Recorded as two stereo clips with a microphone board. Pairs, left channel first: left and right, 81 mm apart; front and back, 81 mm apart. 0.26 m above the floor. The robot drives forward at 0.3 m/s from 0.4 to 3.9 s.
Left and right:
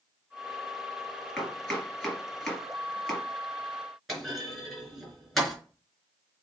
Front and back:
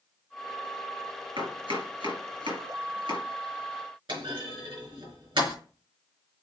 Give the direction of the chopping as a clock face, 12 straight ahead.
6 o'clock.